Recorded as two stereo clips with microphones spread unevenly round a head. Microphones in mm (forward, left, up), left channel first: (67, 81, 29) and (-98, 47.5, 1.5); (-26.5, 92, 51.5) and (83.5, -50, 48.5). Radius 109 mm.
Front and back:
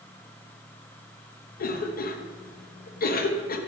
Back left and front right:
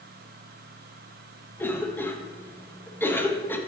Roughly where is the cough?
Ahead left.